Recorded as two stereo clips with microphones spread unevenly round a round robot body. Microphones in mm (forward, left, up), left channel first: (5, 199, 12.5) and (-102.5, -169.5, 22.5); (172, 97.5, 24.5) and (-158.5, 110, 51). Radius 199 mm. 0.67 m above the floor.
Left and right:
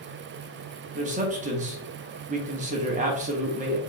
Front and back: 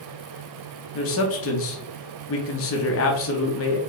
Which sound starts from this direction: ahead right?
A man speaking, at 0.9 s.